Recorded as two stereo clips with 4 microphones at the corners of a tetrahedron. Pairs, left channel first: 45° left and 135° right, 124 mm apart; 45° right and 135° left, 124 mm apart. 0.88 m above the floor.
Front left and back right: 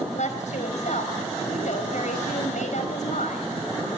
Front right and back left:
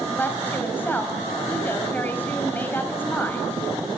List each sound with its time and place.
0.1 s a woman speaking: 30° left, 5 m